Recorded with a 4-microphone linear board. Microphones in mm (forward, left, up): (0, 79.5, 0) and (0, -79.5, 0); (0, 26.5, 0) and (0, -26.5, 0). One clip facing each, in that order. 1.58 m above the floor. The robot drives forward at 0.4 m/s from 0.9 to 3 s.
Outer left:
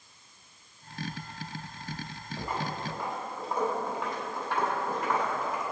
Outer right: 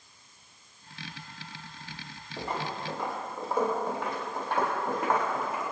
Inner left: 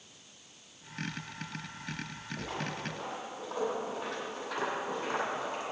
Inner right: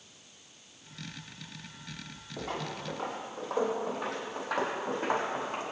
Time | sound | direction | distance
2.4 | footsteps | 65° right (ahead or behind) | 4 m